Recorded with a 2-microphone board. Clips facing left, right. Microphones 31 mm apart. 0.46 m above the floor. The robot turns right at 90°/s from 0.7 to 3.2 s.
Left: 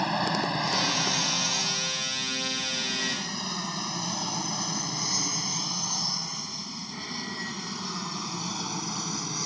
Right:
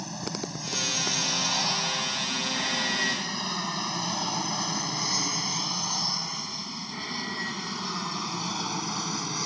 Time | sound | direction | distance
0.0 | an aircraft | 50° left (ahead or behind) | ?